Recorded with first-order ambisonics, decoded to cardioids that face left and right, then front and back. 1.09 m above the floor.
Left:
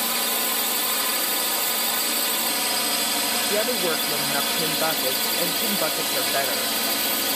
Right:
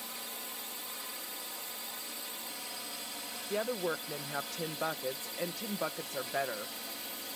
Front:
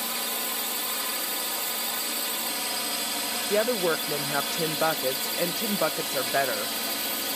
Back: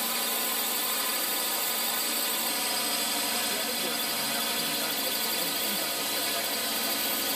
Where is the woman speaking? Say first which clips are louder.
Left 6 dB, front 6 dB; 30° left.